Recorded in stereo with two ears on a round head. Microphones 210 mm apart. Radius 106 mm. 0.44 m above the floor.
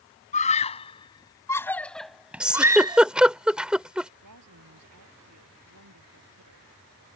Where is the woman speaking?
80° right.